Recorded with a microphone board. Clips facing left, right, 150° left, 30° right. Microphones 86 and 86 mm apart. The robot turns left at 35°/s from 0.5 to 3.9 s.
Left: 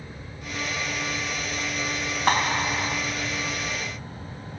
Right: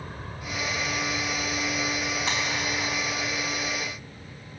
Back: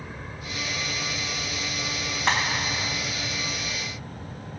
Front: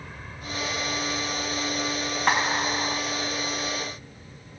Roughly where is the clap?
Ahead left.